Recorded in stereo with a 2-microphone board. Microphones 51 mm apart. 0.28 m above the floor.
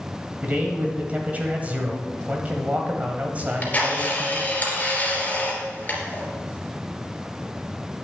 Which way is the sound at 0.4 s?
30° right (ahead or behind).